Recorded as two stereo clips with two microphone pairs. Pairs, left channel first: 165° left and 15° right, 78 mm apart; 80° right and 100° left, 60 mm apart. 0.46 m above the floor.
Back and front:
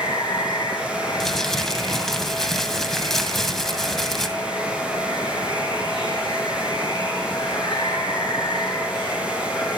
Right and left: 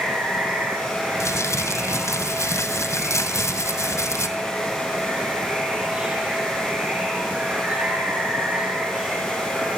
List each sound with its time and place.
0.0 s running water: 170° left, 7.5 m
1.2 s crumpling: 110° right, 1.9 m